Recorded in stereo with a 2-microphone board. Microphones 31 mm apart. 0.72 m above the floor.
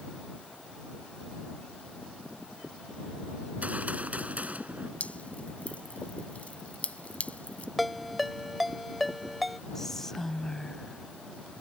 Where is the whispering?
10° left (ahead or behind).